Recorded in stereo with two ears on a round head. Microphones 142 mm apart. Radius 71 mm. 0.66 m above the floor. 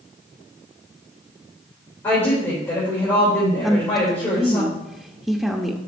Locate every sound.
2.0 s a woman speaking: 15° left (ahead or behind), 3 m
3.6 s a woman speaking: centre (ahead or behind), 0.5 m